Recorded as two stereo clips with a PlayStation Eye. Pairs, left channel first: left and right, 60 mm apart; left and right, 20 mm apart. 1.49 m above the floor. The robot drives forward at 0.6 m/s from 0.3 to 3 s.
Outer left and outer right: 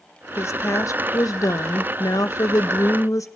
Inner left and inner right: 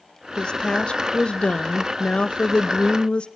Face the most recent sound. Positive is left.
turn(degrees=65)  # may be behind; listen again after turning